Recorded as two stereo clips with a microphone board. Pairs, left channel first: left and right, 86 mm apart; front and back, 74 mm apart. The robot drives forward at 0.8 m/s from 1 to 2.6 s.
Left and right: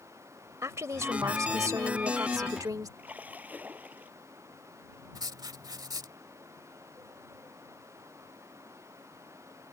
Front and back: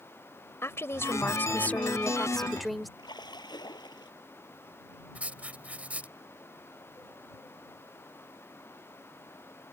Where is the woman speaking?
45° right; by 2.9 s 90° right.